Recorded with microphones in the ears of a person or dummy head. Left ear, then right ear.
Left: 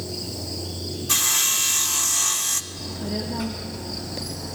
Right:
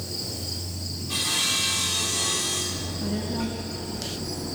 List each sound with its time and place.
1.1 s sawing: 55° left (ahead or behind), 0.5 m
2.7 s a child speaking: 20° left (ahead or behind), 1.3 m